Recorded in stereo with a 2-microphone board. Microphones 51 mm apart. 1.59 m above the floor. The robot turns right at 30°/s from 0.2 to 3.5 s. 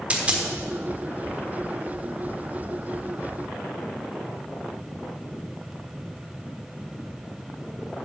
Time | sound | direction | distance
0.1 | a dropped coin | 25° right (ahead or behind) | 1.3 m